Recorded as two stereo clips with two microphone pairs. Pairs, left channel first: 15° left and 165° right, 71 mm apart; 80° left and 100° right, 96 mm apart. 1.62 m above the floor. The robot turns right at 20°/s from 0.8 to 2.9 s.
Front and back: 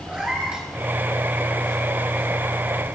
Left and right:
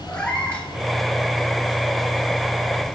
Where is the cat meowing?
135° left, 1.2 m.